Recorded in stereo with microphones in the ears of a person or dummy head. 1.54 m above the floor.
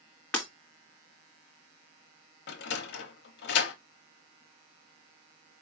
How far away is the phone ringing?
I don't hear a phone ringing.